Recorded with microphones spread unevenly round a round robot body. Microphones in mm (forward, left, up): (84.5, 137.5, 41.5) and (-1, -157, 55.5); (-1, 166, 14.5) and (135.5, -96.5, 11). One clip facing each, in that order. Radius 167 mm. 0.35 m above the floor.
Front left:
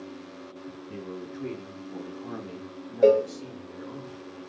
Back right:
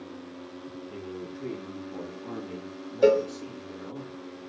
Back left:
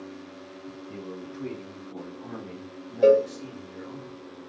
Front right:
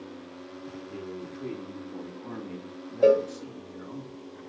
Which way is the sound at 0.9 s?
75° left.